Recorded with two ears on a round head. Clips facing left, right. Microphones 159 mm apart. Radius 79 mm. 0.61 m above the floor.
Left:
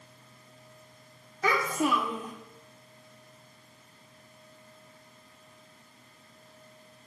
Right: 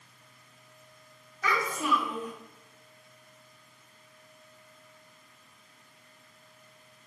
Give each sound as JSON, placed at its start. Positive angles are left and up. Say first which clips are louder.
{"t": 1.4, "sound": "a child speaking", "louder": "left 3 dB", "side_deg": 30, "distance_m": 0.6}